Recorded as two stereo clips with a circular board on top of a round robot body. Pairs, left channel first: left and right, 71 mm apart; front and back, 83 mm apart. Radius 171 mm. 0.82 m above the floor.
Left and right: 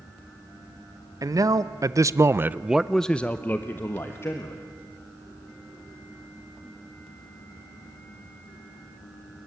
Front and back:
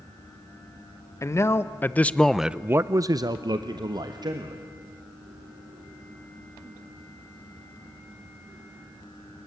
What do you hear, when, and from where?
1.2 s a man speaking: 55° right, 1.6 m; by 4.6 s 145° left, 2 m